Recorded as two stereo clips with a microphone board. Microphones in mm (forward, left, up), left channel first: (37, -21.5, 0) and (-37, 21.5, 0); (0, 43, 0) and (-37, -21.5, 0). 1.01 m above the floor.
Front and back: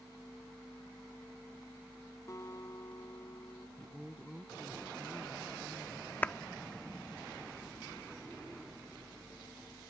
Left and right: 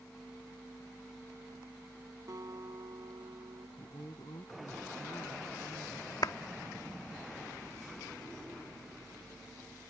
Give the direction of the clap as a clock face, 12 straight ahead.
11 o'clock.